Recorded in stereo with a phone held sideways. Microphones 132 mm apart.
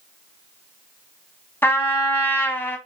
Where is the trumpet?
15° left (ahead or behind), 1.1 m.